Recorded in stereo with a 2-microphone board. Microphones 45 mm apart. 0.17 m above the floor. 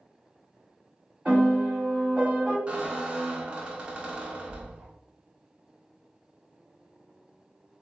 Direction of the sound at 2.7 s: 25° right (ahead or behind).